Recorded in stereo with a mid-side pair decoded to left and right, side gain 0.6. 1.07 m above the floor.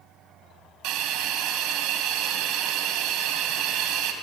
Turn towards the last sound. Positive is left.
turn(degrees=-70)